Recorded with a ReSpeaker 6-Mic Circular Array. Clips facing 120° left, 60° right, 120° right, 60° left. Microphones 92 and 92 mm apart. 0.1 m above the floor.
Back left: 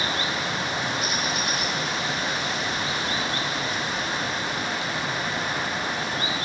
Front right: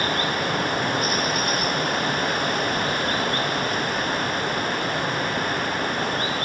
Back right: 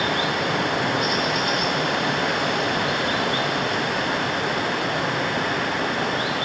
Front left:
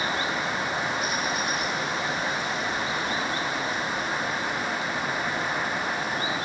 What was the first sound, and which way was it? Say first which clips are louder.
Running water: front right 4 dB, back right 5 dB; 95° right.